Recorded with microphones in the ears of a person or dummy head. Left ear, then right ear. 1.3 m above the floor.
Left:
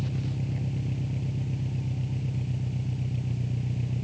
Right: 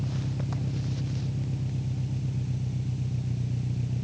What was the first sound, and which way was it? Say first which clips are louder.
An engine running: even; 35° left (ahead or behind).